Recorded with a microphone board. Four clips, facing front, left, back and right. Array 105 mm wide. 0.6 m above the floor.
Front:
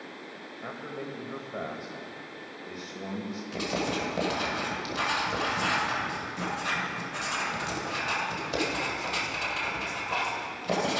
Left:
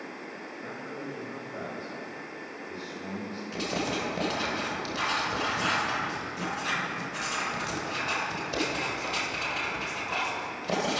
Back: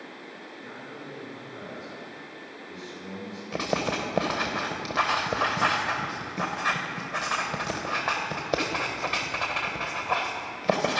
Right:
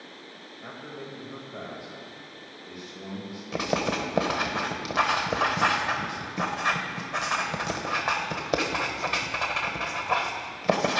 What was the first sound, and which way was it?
A man speaking, 5° right.